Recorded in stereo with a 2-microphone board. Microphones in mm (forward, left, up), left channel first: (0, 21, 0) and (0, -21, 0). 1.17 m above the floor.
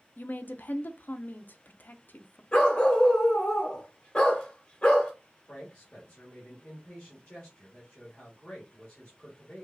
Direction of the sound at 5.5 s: 25° left (ahead or behind).